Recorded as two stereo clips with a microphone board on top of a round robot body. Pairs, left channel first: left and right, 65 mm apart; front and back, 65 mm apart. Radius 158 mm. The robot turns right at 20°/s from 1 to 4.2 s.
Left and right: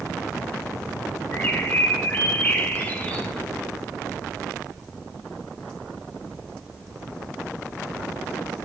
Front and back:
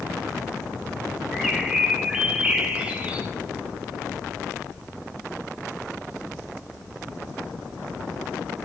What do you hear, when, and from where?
1.3 s a bird: 100° left, 1.3 m; by 3.3 s 140° left, 1.3 m